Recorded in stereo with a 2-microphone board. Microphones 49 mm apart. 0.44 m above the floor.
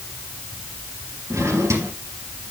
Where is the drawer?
85° right, 3 m.